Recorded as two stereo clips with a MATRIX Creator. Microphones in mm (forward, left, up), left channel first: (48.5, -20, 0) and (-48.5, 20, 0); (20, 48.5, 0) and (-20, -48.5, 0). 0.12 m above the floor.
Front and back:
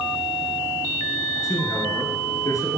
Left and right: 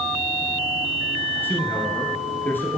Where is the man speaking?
10° left, 1.9 m.